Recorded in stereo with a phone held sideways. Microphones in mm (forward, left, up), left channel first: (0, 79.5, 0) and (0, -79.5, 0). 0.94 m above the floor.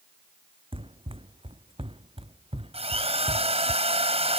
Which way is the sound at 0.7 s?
35° right (ahead or behind).